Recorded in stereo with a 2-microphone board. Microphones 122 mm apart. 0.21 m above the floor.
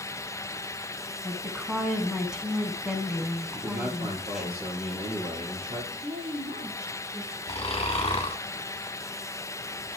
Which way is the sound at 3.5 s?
60° right (ahead or behind).